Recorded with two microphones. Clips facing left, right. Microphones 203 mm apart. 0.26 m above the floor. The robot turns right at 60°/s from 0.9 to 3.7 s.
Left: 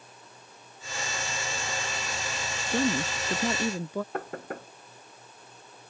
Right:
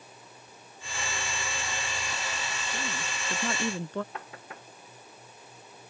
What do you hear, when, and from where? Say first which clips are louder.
2.7 s a woman speaking: left 15 dB; 110° left; by 4.0 s 170° left
4.1 s knocking: left 9 dB; 50° left (ahead or behind)